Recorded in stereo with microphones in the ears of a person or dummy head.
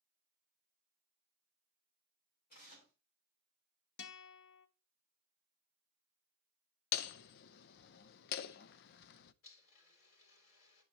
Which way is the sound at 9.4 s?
70° left (ahead or behind).